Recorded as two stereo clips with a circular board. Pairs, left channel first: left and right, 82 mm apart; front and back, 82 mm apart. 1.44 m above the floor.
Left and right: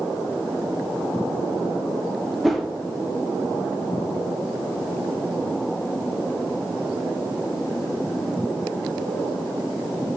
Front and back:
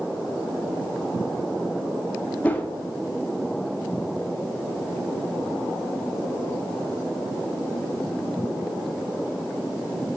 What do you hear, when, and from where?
2.4 s a whoosh: 5° left, 0.7 m